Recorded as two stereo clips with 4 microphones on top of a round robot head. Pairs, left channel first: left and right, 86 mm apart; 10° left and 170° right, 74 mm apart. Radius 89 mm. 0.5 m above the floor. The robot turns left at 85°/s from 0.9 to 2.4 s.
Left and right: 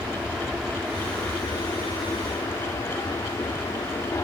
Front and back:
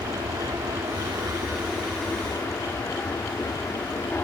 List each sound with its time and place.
0.0 s an aircraft: 170° right; by 4.2 s 60° left